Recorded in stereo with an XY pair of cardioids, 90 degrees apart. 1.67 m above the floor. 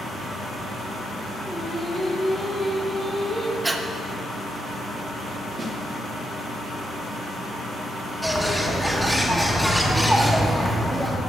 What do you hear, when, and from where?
1.4 s singing: 5° right, 3.5 m
3.6 s breathing: 20° right, 0.9 m
5.6 s a snare drum: 40° right, 1.7 m
8.2 s a bird: 5° right, 1.5 m